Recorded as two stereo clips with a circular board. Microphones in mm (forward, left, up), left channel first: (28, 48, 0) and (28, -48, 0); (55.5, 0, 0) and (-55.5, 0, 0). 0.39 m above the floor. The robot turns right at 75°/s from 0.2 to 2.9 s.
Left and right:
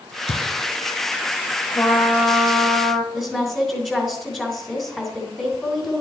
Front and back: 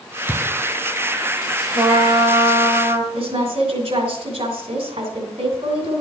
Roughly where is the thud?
Left.